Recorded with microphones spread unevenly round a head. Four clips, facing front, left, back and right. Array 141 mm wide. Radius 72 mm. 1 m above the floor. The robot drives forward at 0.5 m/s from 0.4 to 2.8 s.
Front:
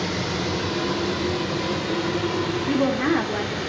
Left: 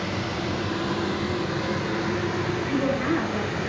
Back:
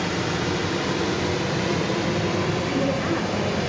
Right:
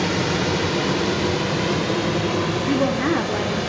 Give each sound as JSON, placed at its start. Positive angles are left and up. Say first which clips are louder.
{"t": 0.0, "sound": "running water", "louder": "right 7 dB, back 1 dB", "azimuth_deg": -100, "distance_m": 1.8}
{"t": 2.7, "sound": "a woman speaking", "louder": "right 4 dB, front 3 dB", "azimuth_deg": -60, "distance_m": 2.0}